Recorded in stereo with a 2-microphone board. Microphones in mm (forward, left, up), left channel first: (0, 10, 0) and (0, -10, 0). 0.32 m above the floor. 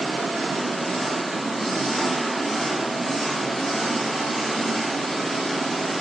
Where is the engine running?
40° left (ahead or behind), 2.0 m.